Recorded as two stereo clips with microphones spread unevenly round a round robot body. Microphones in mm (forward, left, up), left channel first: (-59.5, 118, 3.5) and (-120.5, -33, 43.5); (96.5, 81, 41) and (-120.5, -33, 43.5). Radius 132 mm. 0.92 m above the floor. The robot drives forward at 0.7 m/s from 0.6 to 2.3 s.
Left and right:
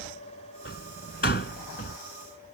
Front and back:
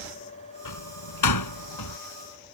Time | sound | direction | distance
0.7 | a door slam | 10° left | ?